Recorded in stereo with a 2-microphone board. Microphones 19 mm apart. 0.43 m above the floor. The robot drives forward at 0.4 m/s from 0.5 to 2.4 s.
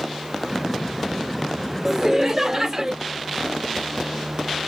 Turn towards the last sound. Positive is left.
turn(degrees=-25)  # may be behind; listen again after turning